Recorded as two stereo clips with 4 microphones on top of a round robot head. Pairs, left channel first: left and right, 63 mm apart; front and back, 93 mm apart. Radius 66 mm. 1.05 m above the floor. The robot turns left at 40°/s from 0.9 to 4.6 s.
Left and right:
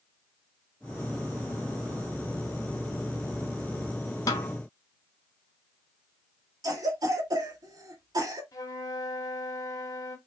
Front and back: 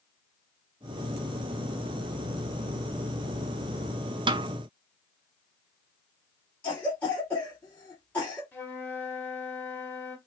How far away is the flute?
About 1.3 m.